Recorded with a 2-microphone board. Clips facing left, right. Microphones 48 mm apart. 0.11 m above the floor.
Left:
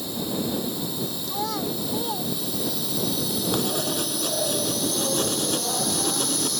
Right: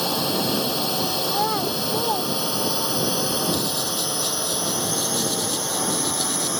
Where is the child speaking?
25° right (ahead or behind).